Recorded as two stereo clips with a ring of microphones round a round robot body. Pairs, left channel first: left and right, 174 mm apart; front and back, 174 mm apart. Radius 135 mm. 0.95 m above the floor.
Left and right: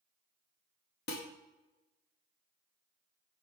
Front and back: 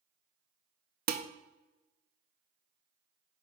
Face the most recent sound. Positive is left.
turn(degrees=140)